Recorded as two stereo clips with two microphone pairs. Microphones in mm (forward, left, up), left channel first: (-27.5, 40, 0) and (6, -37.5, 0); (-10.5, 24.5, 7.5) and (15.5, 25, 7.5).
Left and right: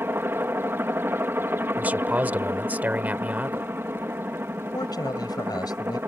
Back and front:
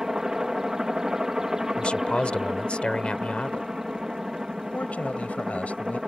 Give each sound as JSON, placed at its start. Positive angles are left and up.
{"t": 0.0, "sound": "a helicopter", "azimuth_deg": -45}
{"t": 1.8, "sound": "a man speaking", "azimuth_deg": -135}
{"t": 4.7, "sound": "a man speaking", "azimuth_deg": 150}